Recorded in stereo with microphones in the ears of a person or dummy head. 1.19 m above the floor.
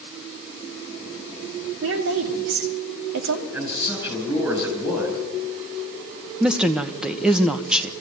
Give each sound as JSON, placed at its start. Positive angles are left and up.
{"t": 1.8, "sound": "a woman speaking", "side_deg": -75, "distance_m": 3.0}
{"t": 3.5, "sound": "a man speaking", "side_deg": -10, "distance_m": 7.5}
{"t": 6.4, "sound": "a woman speaking", "side_deg": -5, "distance_m": 1.1}